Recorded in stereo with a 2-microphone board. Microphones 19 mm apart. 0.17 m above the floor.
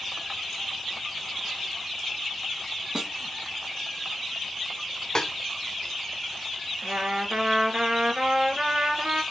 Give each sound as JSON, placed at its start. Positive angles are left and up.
{"t": 3.0, "sound": "a snare drum", "side_deg": -35, "distance_m": 1.6}
{"t": 5.2, "sound": "a snare drum", "side_deg": 35, "distance_m": 1.0}
{"t": 6.8, "sound": "a trumpet", "side_deg": -60, "distance_m": 1.6}